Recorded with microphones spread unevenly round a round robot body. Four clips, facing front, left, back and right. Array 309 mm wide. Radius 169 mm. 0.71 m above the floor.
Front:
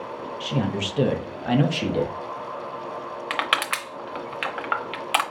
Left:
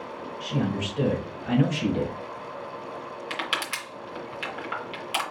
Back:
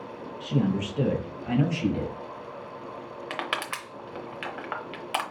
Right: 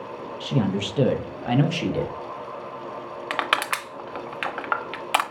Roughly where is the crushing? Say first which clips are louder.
Right 8 dB, front 6 dB; ahead right.